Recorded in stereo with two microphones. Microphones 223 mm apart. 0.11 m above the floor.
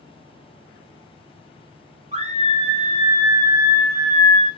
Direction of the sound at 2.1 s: 30° right (ahead or behind).